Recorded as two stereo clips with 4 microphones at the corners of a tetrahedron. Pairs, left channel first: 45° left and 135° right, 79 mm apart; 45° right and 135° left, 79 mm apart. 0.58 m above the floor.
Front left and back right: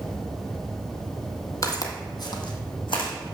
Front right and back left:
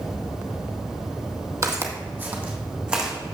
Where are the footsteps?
85° left, 1.1 m; by 3.1 s 55° left, 2 m.